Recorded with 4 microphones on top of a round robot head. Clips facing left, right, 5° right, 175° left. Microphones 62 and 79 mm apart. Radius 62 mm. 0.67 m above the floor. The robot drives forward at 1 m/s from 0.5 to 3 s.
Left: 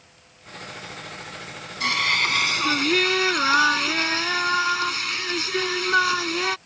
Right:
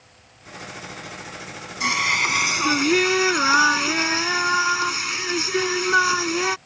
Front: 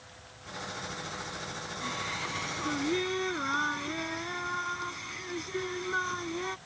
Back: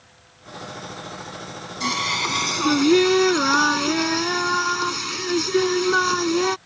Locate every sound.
1.8 s singing: 170° right